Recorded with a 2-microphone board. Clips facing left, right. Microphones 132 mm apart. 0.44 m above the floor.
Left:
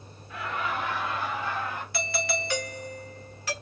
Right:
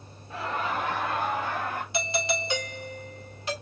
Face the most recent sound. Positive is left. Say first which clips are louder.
# right 1 dB
turn(degrees=-20)  # may be behind; listen again after turning